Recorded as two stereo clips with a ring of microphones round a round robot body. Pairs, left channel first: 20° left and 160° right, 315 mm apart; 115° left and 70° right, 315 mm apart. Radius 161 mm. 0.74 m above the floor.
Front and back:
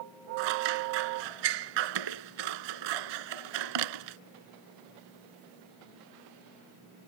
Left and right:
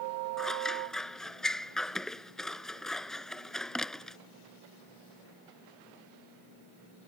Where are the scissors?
160° right.